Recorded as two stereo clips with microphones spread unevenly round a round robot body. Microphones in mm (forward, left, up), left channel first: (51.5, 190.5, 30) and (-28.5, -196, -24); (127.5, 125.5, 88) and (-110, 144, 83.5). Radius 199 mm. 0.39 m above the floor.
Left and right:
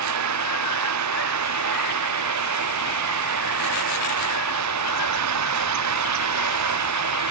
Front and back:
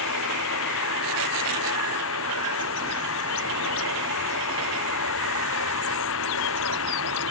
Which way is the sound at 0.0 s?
50° right.